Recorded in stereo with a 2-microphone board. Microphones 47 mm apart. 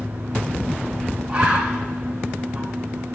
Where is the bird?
35° right (ahead or behind), 3.5 m.